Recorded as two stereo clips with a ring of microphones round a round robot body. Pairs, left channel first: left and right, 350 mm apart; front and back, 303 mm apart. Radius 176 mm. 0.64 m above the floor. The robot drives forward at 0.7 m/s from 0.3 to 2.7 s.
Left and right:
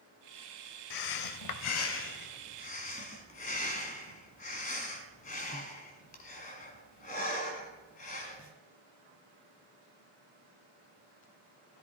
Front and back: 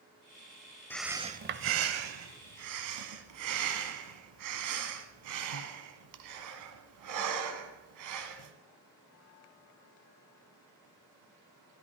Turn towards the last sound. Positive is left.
turn(degrees=160)